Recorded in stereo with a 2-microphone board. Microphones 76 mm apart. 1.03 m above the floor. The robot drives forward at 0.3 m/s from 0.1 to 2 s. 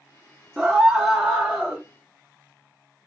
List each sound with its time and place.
0.6 s a scream: 10° right (ahead or behind), 0.8 m; by 1.8 s 5° right (ahead or behind), 1.0 m